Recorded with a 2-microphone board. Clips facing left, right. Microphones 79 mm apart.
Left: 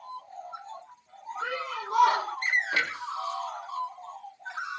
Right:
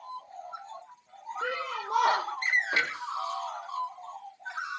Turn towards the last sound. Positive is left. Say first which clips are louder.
# even
turn(degrees=-30)  # may be behind; listen again after turning